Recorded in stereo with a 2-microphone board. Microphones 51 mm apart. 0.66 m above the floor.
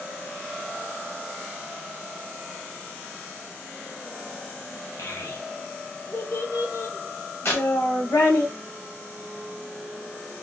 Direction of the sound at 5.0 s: 65° left (ahead or behind).